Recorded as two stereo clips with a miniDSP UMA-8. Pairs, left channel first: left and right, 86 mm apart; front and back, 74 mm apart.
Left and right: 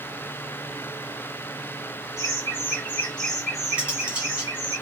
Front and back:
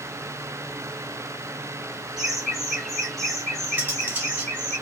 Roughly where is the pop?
I don't hear a pop.